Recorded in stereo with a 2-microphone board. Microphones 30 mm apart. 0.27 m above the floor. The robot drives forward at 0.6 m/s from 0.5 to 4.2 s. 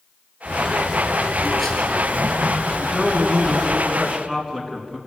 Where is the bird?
Centre (ahead or behind), 3.5 m.